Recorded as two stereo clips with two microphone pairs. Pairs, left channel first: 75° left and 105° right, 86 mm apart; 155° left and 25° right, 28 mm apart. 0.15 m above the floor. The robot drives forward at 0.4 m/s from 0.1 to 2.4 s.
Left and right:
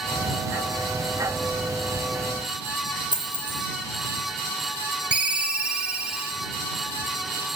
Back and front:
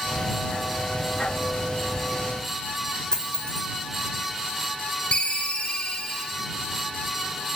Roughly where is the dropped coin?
Behind right.